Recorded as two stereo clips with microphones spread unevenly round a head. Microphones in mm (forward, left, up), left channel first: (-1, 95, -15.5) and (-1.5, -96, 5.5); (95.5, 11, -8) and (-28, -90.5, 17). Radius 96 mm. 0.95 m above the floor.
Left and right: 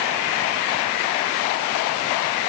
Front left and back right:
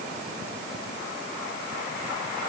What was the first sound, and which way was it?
Only background noise.